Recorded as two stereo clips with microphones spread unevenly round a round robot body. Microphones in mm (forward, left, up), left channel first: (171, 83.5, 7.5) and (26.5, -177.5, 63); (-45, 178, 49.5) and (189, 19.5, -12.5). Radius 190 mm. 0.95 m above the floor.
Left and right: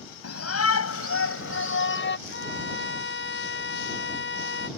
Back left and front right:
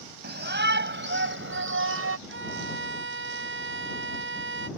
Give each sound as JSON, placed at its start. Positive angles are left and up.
{"t": 0.2, "sound": "a shout", "azimuth_deg": 20}
{"t": 2.3, "sound": "a violin", "azimuth_deg": 10}